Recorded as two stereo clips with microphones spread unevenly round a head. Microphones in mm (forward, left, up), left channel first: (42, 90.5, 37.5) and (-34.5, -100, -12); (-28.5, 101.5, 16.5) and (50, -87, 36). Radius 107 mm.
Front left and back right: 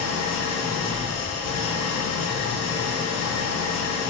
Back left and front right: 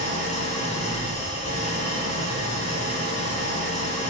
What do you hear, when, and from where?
0.0 s an engine running: 60° left, 1.6 m